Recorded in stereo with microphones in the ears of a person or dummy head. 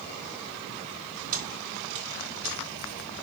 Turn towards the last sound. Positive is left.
turn(degrees=-40)  # may be behind; listen again after turning